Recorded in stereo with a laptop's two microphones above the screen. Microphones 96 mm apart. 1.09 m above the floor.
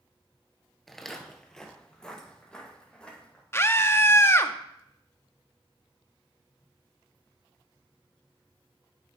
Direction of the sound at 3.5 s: 25° left (ahead or behind).